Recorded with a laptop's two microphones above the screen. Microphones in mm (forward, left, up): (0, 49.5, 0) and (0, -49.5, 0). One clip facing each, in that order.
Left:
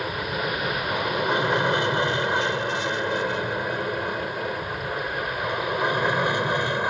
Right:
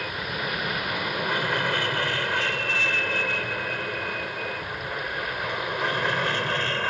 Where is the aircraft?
20° left (ahead or behind); by 6.9 s 15° left (ahead or behind).